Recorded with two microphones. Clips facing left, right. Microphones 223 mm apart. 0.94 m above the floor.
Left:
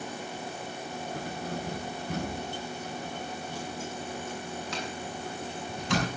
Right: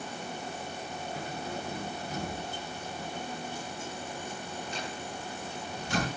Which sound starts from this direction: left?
Keys jangling, at 1.1 s.